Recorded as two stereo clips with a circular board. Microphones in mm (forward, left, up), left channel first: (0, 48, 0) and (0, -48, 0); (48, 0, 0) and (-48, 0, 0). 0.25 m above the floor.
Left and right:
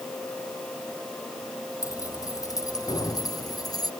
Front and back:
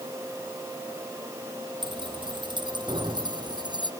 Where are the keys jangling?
145° left; by 3.9 s 140° left.